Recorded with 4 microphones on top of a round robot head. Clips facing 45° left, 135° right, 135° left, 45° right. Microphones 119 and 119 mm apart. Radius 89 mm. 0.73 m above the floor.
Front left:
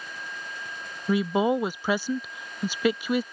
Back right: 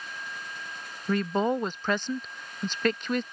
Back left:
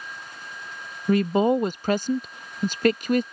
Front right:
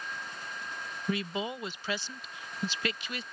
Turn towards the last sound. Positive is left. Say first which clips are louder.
# front left 3 dB, back left 14 dB
turn(degrees=125)